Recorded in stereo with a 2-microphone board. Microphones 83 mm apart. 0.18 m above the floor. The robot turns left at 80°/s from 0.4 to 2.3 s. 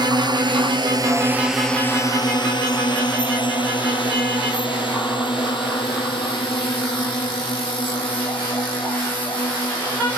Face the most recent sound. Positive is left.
turn(degrees=80)